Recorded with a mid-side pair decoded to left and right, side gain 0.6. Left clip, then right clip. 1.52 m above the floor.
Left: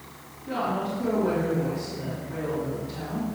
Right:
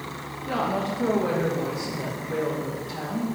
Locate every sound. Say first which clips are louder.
0.5 s a woman speaking: right 2 dB; 35° right, 2.5 m